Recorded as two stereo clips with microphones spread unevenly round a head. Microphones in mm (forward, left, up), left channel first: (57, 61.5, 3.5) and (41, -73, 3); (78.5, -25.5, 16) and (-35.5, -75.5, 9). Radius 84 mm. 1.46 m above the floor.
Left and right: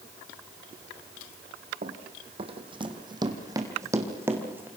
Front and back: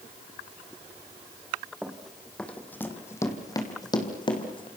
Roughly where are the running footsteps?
Right.